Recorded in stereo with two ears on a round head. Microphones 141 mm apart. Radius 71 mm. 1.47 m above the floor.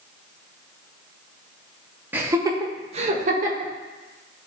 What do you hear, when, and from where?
2.1 s laughter: 15° right (ahead or behind), 1.5 m; by 3.7 s 65° right (ahead or behind), 1.9 m